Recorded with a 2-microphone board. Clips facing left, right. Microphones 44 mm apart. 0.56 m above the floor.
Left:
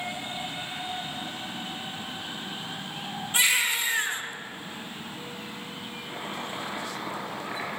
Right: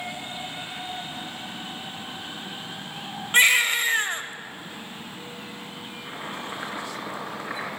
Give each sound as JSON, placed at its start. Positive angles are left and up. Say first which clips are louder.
{"t": 3.3, "sound": "a baby crying", "louder": "right 6 dB", "side_deg": -50, "distance_m": 1.3}
{"t": 6.0, "sound": "chopping", "louder": "right 1 dB", "side_deg": -65, "distance_m": 4.5}